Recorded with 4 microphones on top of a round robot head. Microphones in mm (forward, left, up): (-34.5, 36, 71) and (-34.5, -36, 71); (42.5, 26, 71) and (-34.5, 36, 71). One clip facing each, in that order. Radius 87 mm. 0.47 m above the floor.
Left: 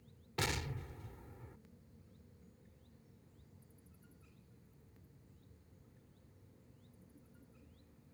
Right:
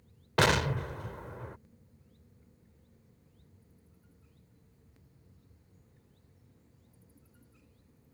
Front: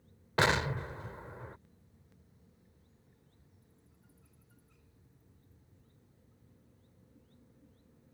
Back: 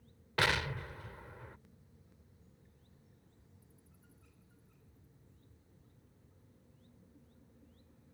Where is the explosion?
70° right.